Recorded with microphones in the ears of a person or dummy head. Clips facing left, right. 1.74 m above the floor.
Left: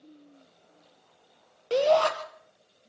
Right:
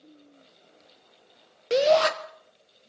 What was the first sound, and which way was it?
A shout, 25° right (ahead or behind).